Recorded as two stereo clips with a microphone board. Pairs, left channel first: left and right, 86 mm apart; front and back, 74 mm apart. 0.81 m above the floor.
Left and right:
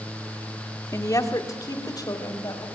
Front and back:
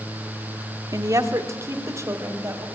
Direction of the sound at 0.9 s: 140° left.